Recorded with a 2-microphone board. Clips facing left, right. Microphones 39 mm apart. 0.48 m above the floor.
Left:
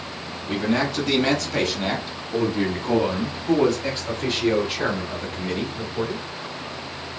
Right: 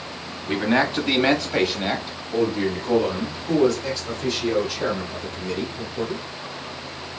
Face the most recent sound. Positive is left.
turn(degrees=35)  # may be behind; listen again after turning